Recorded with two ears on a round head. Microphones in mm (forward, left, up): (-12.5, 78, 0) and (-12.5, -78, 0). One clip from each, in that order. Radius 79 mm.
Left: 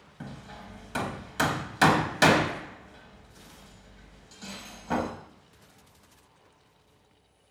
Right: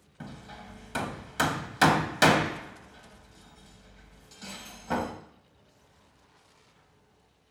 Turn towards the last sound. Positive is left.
turn(degrees=-10)  # may be behind; listen again after turning